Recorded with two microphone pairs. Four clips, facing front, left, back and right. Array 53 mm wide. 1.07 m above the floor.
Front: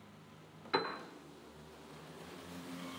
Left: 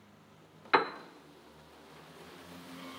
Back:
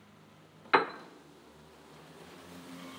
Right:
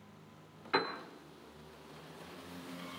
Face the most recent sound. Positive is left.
turn(degrees=145)